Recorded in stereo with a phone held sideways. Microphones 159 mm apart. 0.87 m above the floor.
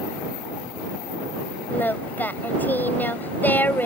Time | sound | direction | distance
1.7 | singing | 10° left (ahead or behind) | ?